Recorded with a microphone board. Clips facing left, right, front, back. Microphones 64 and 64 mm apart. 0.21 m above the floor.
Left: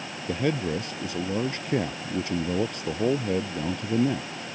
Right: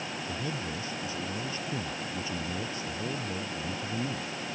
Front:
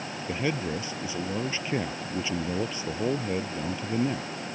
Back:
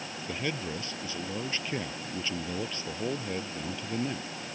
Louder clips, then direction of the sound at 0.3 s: Left 12 dB, front 5 dB; 75° left.